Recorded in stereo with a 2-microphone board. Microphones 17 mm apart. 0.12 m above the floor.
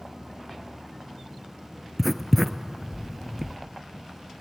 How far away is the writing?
About 0.9 m.